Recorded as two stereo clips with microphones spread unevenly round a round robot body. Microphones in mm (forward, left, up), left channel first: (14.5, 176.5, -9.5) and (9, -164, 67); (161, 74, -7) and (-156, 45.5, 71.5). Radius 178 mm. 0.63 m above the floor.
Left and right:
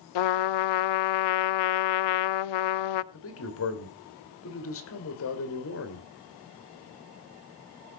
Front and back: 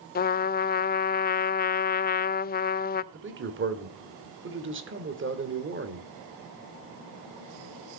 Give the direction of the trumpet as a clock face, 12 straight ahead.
10 o'clock.